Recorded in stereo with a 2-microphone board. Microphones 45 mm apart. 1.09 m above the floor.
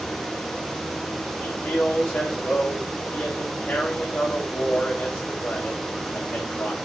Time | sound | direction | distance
1.4 | a man speaking | 40° left (ahead or behind) | 6.5 m